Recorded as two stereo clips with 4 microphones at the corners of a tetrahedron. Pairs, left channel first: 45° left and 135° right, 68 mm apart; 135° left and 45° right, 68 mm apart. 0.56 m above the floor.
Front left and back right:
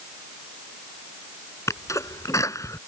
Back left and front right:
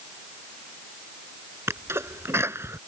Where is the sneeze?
5° left.